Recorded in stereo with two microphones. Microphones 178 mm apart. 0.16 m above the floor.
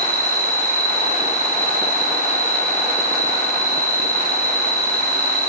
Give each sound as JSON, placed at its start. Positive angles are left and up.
{"t": 0.0, "sound": "an insect", "side_deg": -50, "distance_m": 2.5}